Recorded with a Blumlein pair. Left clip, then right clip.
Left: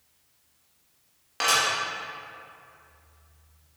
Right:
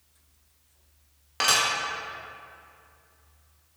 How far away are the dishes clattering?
About 1.7 m.